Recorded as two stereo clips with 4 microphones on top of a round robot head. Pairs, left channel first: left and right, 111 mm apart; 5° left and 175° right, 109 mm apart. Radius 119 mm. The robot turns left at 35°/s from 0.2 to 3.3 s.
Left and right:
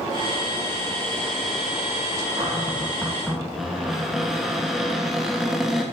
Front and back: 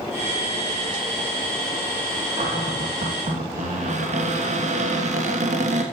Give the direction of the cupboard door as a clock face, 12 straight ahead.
5 o'clock.